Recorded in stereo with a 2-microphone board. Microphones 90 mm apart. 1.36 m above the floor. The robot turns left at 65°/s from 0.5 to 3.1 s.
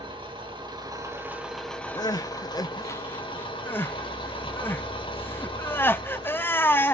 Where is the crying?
45° left (ahead or behind), 0.5 m; by 6.9 s 25° left (ahead or behind), 0.5 m.